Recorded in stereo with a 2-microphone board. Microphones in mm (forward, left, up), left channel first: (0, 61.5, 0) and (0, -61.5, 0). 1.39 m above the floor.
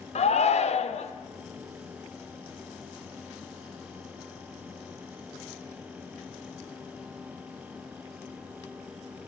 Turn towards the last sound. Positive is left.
turn(degrees=60)  # may be behind; listen again after turning